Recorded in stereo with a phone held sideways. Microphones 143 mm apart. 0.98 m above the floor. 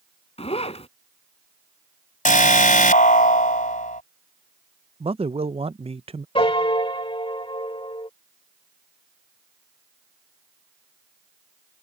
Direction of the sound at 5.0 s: 45° right (ahead or behind).